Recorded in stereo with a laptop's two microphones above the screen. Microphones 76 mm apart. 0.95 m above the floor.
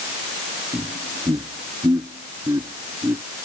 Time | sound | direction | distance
0.7 | laughter | 55° right (ahead or behind) | ?